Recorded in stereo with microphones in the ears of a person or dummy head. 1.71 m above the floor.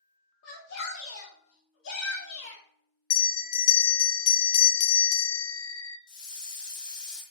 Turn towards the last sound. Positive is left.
turn(degrees=25)  # may be behind; listen again after turning